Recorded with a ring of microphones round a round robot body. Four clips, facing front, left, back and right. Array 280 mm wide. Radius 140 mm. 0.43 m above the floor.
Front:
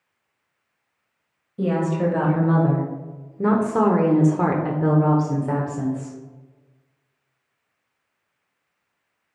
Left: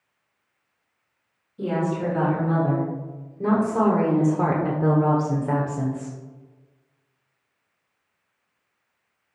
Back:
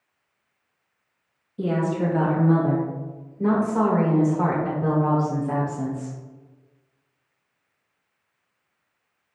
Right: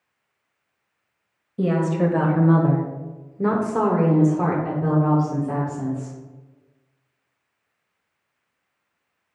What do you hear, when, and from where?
1.6 s a woman speaking: 70° right, 2 m; by 6.2 s 65° left, 1.7 m